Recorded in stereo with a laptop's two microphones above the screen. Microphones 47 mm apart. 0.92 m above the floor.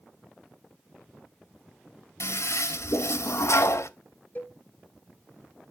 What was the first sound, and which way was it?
A toilet flushing, 80° left.